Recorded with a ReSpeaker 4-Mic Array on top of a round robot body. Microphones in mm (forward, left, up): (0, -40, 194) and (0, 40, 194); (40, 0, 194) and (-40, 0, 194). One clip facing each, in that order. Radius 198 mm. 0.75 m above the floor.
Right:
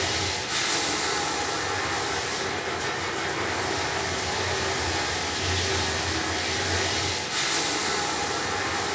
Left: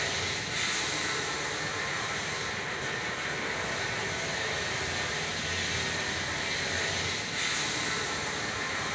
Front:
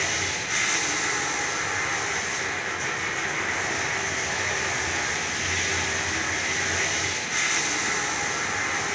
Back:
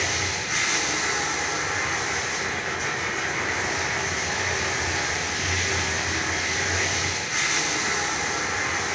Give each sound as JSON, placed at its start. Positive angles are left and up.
{"t": 0.0, "sound": "running water", "azimuth_deg": -90, "distance_m": 2.5}